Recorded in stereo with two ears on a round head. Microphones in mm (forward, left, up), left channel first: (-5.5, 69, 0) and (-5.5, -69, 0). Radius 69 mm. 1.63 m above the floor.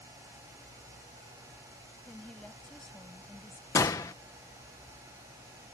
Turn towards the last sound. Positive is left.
turn(degrees=20)  # may be behind; listen again after turning